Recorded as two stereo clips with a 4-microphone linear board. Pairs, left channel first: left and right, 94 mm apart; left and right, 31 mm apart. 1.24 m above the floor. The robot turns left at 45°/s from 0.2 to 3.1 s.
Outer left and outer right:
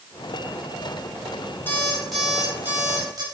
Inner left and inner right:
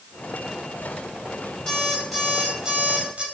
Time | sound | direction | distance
1.7 | an alarm clock | 20° left | 5 m